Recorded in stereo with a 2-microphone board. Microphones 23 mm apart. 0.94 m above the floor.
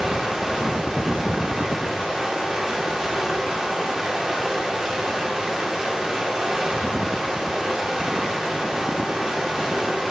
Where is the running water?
30° right (ahead or behind), 2.5 m.